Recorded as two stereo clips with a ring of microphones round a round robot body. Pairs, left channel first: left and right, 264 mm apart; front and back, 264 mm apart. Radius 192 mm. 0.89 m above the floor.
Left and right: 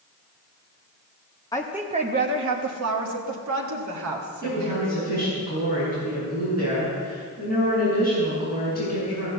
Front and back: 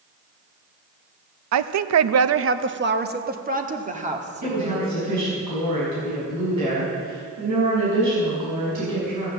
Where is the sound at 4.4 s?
170° right, 6.5 m.